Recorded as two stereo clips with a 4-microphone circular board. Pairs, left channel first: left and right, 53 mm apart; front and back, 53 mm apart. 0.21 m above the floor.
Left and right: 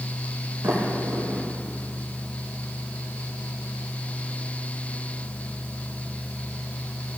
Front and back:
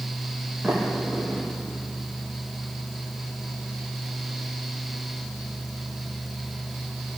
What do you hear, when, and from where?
0.6 s a sliding door: 105° right, 4.5 m